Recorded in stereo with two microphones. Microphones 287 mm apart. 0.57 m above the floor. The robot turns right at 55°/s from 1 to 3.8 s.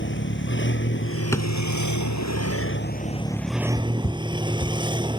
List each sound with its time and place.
0.0 s a vehicle: 40° left; by 5.2 s 165° right
1.3 s a drawer: 10° left (ahead or behind); by 1.5 s 20° left (ahead or behind)
3.8 s running footsteps: 5° left (ahead or behind); by 5.1 s 15° left (ahead or behind)